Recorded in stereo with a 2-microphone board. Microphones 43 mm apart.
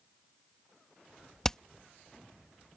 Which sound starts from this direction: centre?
Hammering, at 1.4 s.